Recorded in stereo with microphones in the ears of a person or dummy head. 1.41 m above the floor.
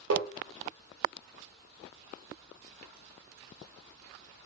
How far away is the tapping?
About 0.6 m.